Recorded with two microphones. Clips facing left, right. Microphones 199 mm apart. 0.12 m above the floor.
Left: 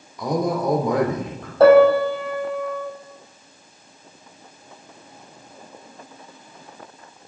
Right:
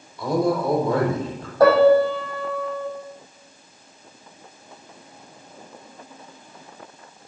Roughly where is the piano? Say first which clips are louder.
Left 2 dB; left.